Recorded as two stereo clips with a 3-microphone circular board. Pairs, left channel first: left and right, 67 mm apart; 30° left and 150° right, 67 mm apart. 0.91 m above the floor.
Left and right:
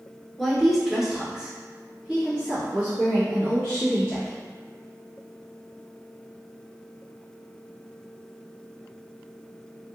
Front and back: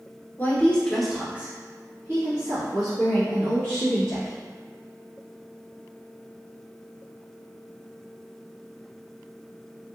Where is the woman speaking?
Straight ahead, 0.9 m; by 4.4 s 165° right, 2.5 m.